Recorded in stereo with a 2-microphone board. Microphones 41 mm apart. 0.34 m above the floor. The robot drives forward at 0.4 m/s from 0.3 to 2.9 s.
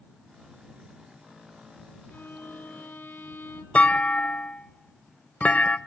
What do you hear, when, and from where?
2.1 s a violin: 45° left (ahead or behind), 2.5 m; by 3.6 s 50° left (ahead or behind), 2.5 m
3.8 s a clunk: 30° left (ahead or behind), 0.6 m